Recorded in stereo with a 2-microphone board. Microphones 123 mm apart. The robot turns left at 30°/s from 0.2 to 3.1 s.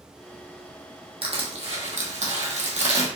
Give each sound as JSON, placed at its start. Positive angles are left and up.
{"t": 1.2, "sound": "crushing", "azimuth_deg": -60, "distance_m": 1.0}